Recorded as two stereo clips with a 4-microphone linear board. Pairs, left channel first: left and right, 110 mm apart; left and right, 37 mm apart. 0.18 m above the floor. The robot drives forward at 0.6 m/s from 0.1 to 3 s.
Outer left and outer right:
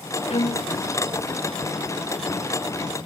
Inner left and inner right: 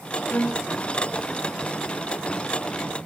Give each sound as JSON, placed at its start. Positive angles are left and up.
{"t": 0.3, "sound": "a violin", "side_deg": 65, "distance_m": 3.5}